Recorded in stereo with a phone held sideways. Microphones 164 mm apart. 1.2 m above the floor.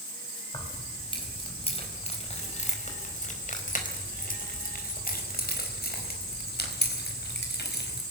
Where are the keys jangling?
30° left (ahead or behind), 4.5 m; by 8.0 s 85° left, 4.5 m.